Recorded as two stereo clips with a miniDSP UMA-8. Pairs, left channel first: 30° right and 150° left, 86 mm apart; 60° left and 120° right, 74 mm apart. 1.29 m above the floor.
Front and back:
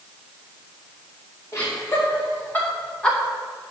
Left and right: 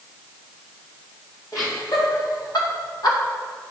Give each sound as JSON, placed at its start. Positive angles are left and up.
{"t": 1.5, "sound": "laughter", "azimuth_deg": 25, "distance_m": 2.5}